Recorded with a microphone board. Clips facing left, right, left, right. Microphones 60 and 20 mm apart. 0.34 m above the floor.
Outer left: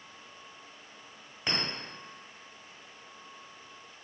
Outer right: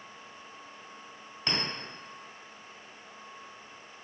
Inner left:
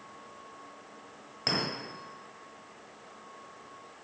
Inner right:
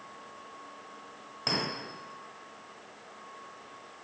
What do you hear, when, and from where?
1.5 s a clink: 15° left (ahead or behind), 1.2 m